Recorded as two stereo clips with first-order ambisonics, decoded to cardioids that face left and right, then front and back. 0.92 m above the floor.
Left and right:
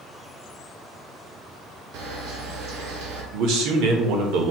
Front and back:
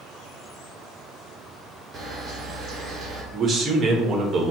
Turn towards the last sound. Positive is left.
turn(degrees=-115)